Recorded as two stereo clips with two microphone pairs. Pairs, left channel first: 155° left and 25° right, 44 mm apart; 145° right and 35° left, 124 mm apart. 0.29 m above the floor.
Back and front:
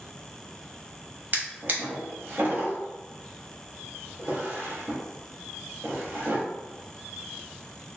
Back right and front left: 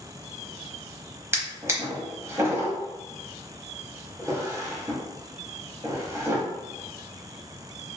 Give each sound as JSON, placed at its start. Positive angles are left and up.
{"t": 1.3, "sound": "a drawer", "azimuth_deg": -25, "distance_m": 0.8}